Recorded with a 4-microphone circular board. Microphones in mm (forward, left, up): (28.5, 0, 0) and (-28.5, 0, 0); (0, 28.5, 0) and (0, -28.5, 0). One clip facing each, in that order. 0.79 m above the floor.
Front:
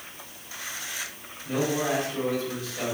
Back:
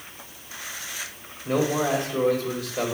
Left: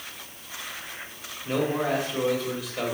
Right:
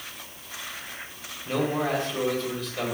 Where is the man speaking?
170° left, 4 m.